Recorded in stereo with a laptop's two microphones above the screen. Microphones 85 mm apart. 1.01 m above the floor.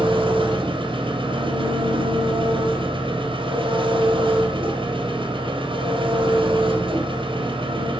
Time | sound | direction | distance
0.0 | an engine running | 80° right | 3.5 m